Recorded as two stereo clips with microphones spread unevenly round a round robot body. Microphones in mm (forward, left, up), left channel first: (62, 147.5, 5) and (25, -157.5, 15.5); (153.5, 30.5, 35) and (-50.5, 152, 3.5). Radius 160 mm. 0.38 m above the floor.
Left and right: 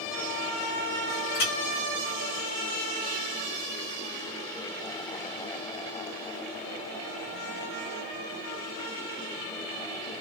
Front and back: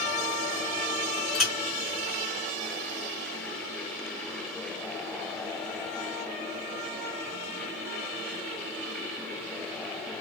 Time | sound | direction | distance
1.4 | a clink | 60° left | 3 m